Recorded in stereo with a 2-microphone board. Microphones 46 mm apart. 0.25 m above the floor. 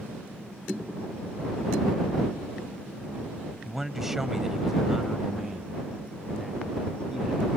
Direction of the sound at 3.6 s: 5° right (ahead or behind).